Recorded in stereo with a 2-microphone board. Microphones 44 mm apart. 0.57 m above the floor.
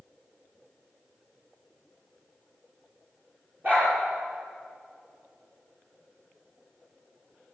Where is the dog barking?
40° right (ahead or behind), 6 m.